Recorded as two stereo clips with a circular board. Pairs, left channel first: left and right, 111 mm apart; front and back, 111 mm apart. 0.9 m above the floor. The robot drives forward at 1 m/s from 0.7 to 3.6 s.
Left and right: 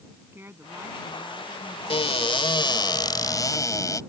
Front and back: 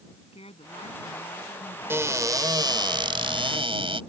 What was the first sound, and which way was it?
A woman speaking, 20° right.